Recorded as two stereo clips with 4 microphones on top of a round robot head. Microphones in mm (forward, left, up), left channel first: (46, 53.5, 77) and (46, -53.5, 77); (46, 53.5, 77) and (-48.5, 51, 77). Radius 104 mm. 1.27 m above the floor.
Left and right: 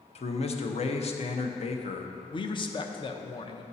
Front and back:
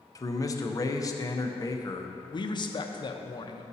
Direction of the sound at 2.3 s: 45° left.